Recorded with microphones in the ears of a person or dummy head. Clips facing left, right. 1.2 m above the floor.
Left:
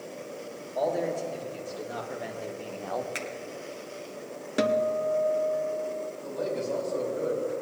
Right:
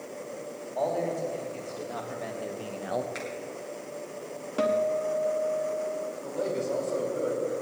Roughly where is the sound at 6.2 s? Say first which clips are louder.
Right 1 dB; right.